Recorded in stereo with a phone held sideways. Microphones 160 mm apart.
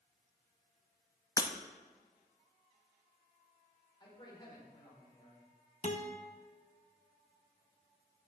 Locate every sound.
1.4 s breaking glass: 20° left (ahead or behind), 0.8 m
4.0 s a man speaking: 30° left (ahead or behind), 4.5 m
5.8 s a guitar: 55° left (ahead or behind), 1.1 m